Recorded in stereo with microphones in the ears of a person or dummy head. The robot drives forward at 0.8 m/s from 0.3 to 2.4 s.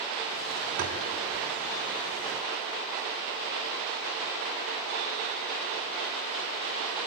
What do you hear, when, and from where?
0.8 s tapping: 50° right (ahead or behind), 3.5 m